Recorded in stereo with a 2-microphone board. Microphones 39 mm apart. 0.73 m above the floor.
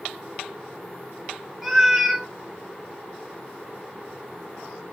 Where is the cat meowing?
10° right (ahead or behind), 0.5 m.